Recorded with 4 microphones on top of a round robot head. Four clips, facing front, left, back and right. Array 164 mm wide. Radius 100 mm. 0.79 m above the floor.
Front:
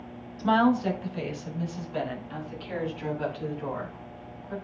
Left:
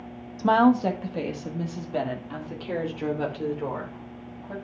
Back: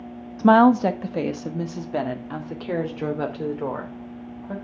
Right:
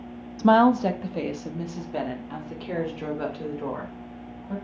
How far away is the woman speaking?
About 0.9 m.